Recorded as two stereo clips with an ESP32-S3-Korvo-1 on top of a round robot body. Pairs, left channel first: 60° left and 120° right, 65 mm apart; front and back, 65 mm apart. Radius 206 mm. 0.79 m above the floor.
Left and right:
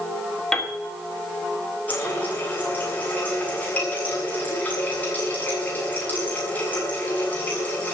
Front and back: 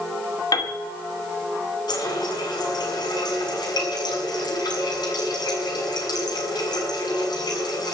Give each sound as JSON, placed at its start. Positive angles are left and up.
{"t": 0.5, "sound": "a piano", "azimuth_deg": -25, "distance_m": 2.5}
{"t": 1.9, "sound": "a running tap", "azimuth_deg": -10, "distance_m": 6.5}